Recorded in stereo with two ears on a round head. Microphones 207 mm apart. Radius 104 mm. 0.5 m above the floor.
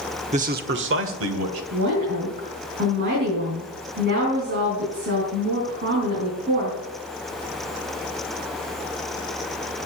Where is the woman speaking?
45° right (ahead or behind), 4.5 m.